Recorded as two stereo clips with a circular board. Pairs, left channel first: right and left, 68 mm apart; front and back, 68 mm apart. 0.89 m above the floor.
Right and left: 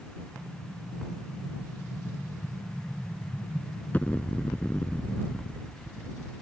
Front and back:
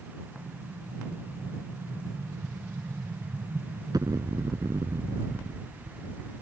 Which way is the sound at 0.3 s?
155° right.